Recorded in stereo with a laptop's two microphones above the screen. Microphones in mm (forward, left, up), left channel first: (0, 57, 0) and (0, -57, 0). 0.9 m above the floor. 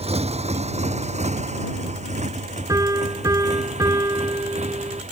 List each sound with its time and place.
0.0 s a motorcycle: 65° right (ahead or behind); by 5.1 s 80° right
2.7 s a piano: 30° right (ahead or behind)